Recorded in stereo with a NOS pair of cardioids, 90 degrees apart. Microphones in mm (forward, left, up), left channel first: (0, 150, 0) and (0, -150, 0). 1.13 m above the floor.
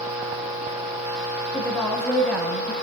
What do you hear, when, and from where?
1.5 s a woman speaking: 5° left, 7 m; by 2.7 s 5° right, 6.5 m